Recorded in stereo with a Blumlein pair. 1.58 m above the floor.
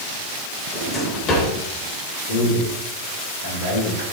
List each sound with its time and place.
0.7 s a drawer: 30° left, 3.5 m
2.3 s a man speaking: 60° left, 4.5 m